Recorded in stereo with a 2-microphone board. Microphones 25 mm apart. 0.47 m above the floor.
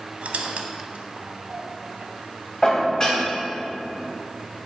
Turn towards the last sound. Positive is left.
turn(degrees=20)  # may be behind; listen again after turning